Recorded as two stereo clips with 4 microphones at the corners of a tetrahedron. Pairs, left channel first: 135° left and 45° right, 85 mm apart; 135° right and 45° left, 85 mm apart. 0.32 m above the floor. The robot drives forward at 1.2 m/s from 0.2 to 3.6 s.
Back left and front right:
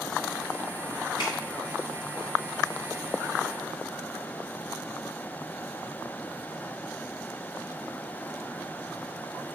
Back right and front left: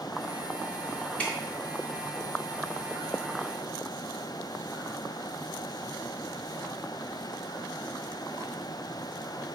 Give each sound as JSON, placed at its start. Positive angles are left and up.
{"t": 1.2, "sound": "dripping", "azimuth_deg": 150, "distance_m": 4.5}